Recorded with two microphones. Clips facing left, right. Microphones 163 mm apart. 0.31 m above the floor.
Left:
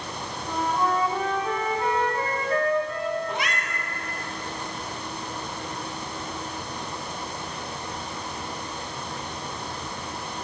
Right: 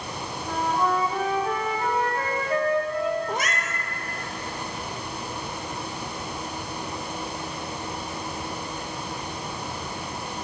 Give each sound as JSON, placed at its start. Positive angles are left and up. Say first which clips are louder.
{"t": 0.4, "sound": "a flute", "louder": "right 1 dB", "side_deg": -10, "distance_m": 2.0}
{"t": 3.3, "sound": "a cat meowing", "louder": "right 1 dB", "side_deg": -50, "distance_m": 1.0}